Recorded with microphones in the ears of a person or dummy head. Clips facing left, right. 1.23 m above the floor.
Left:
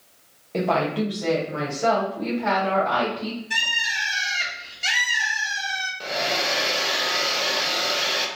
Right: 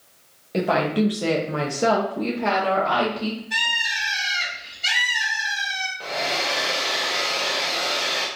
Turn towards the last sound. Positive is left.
turn(degrees=15)  # may be behind; listen again after turning